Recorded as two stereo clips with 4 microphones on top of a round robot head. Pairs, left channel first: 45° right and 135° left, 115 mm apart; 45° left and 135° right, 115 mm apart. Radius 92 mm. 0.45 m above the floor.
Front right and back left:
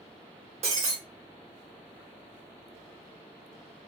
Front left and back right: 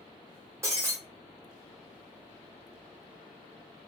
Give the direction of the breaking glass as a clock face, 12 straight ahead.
7 o'clock.